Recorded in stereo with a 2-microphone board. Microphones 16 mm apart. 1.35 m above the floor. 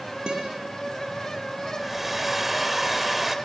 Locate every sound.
0.3 s a guitar: 65° right (ahead or behind), 6.5 m
1.8 s a hair dryer: 5° right (ahead or behind), 1.7 m